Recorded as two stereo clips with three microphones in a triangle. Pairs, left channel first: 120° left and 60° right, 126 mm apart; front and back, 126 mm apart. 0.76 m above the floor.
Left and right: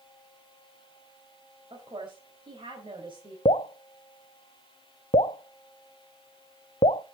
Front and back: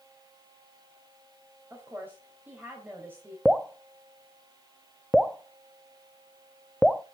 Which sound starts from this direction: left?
Dripping, at 3.5 s.